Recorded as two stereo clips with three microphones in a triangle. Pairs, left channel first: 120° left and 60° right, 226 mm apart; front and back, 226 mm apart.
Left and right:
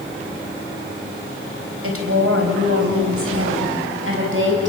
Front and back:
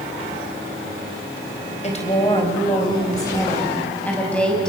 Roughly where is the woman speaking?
Ahead right.